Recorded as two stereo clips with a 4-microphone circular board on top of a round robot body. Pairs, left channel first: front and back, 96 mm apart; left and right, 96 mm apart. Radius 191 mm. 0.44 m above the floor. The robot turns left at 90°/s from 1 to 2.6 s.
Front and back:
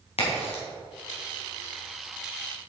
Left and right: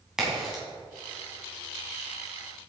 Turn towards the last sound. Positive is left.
turn(degrees=-150)